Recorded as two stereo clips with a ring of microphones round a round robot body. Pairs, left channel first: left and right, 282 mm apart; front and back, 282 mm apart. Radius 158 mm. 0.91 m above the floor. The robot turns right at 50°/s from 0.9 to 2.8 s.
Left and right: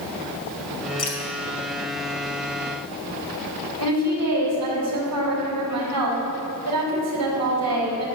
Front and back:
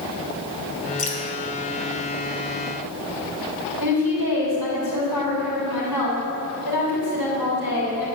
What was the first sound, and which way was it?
Dripping, 60° left.